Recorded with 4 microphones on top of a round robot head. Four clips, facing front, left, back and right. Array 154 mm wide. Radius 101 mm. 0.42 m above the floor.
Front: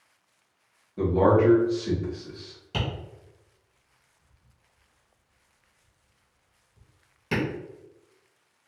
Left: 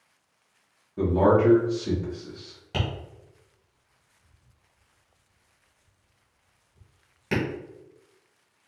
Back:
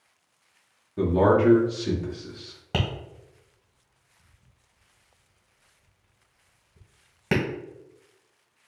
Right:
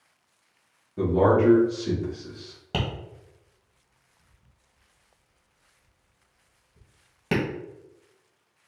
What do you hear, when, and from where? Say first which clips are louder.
1.0 s a man speaking: even, even; straight behind, 1.3 m
2.7 s tapping: right 1 dB, back 2 dB; 145° right, 1.7 m